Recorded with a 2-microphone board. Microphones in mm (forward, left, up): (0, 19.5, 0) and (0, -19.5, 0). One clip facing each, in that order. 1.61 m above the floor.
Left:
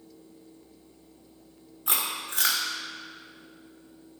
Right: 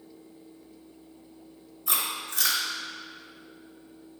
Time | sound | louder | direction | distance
1.9 | chewing | even | 55° left (ahead or behind) | 2.5 m